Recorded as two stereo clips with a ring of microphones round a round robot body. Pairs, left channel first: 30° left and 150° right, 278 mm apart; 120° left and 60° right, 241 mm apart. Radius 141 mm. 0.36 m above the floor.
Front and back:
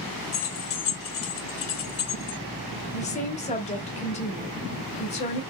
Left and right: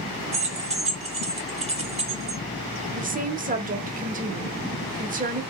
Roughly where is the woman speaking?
Ahead right.